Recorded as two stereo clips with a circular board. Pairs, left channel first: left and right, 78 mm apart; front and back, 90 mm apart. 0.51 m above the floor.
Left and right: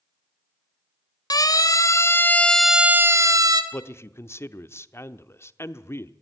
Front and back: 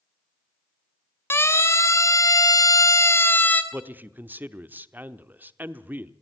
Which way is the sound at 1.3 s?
60° left.